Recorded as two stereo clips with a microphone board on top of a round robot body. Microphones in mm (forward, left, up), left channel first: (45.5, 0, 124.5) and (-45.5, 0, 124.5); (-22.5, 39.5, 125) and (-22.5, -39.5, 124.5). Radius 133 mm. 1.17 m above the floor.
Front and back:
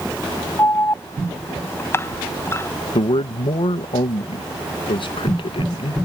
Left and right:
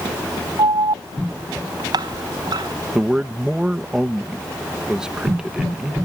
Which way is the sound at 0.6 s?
60° right.